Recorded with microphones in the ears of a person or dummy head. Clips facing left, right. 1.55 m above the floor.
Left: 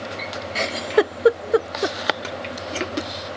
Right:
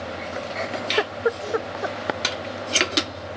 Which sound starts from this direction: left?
A giggle, at 0.6 s.